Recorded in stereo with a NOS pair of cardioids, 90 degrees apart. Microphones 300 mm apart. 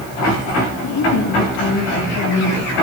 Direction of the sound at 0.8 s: 65° left.